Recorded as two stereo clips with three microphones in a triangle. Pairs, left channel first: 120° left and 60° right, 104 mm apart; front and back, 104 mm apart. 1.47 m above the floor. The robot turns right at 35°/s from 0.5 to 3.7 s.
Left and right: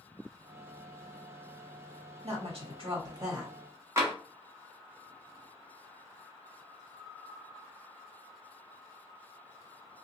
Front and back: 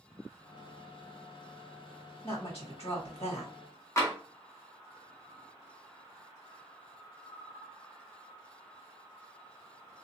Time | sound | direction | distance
2.2 | a woman speaking | 40° right | 1.5 m
4.0 | tapping | 30° right | 1.0 m